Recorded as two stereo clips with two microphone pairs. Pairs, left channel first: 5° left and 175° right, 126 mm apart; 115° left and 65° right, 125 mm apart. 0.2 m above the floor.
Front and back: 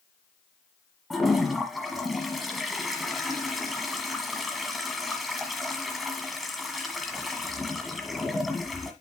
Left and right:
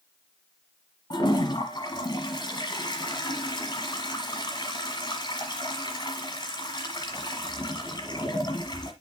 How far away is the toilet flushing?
About 1.4 m.